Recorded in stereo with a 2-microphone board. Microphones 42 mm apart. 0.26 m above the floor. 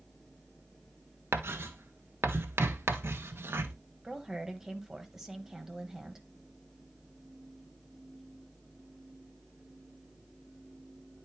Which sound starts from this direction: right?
Writing, at 1.3 s.